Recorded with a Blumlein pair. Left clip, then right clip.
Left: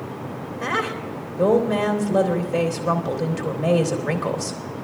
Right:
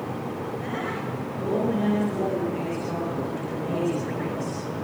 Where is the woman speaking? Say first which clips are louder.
Left 10 dB; 40° left, 3.5 m.